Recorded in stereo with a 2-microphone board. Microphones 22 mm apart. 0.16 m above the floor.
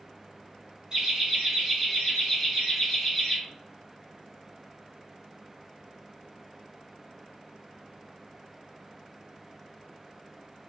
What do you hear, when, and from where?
0.9 s laughter: 35° right (ahead or behind), 1.7 m; by 3.4 s centre (ahead or behind), 2 m